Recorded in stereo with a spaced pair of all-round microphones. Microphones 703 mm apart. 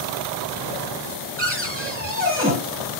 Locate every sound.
1.4 s a cupboard door: 10° right (ahead or behind), 3.5 m